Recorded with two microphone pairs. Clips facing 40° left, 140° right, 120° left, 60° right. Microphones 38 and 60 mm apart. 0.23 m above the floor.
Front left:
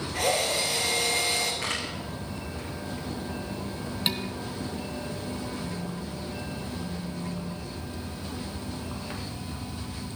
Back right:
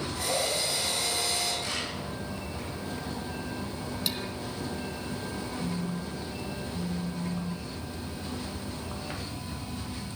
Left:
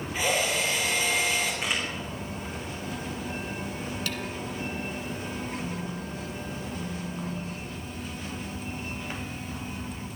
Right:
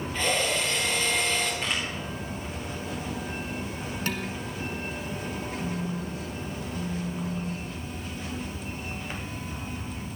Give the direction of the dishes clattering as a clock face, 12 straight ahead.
12 o'clock.